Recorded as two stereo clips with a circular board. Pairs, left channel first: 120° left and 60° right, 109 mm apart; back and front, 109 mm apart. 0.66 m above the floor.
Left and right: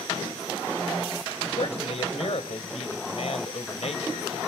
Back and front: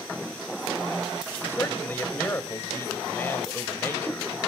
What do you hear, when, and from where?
1.5 s a man speaking: 110° left, 2.5 m